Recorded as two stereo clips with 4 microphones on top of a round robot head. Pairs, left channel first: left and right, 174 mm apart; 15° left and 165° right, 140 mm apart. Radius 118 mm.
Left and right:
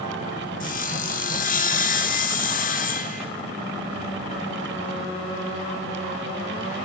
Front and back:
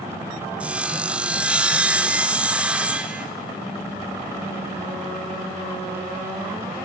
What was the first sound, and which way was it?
Sawing, 115° left.